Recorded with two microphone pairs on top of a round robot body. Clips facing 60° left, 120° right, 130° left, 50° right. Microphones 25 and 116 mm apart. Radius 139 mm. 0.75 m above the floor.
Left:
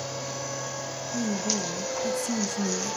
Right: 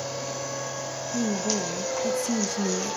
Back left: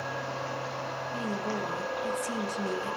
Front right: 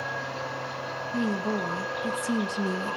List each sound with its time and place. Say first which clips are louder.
1.1 s a woman speaking: right 2 dB, front right 6 dB; 95° right, 1.4 m